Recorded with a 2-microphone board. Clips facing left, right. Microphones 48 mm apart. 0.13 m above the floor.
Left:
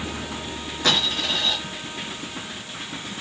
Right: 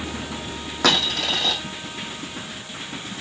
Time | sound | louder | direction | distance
0.8 | a dropped coin | right 2 dB | 75° right (ahead or behind) | 1.7 m